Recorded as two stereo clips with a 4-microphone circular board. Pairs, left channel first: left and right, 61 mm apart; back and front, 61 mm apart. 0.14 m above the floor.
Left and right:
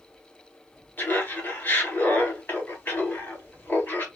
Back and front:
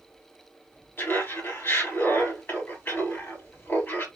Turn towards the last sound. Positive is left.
turn(degrees=140)